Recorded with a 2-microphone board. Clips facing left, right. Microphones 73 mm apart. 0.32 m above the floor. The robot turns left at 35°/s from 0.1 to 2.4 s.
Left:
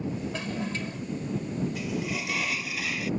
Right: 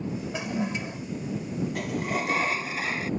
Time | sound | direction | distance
0.3 | a toilet flushing | 15° right (ahead or behind) | ?
1.8 | a sliding door | 60° right (ahead or behind) | ?